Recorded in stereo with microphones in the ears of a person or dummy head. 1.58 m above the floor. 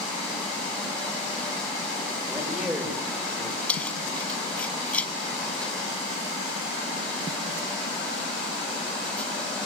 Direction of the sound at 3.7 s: 5° left (ahead or behind).